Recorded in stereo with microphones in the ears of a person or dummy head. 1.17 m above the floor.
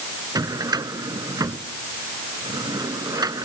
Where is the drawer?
15° right (ahead or behind).